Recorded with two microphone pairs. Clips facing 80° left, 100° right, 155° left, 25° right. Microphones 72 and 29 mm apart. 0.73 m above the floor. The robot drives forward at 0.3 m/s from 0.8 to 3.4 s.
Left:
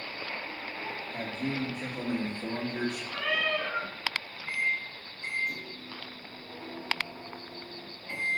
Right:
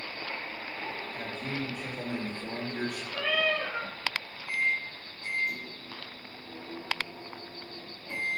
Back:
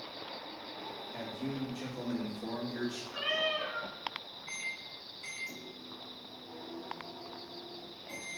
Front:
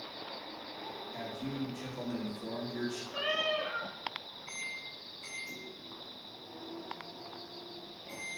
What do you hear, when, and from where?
1.1 s a man speaking: 75° left, 1.9 m; by 3.0 s 100° left, 1.8 m
3.1 s a cat meowing: 65° left, 2.5 m
4.5 s a microwave: 80° left, 3.5 m